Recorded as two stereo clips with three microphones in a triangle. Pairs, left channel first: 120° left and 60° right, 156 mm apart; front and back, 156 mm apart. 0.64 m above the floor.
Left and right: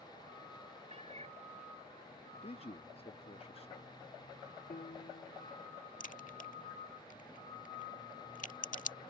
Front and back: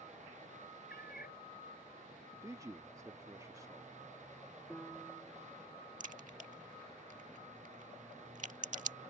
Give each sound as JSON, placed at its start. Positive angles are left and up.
{"t": 0.9, "sound": "a cat meowing", "azimuth_deg": -10}
{"t": 2.4, "sound": "a man speaking", "azimuth_deg": 125}
{"t": 4.7, "sound": "a piano", "azimuth_deg": 95}
{"t": 6.0, "sound": "a crack", "azimuth_deg": 145}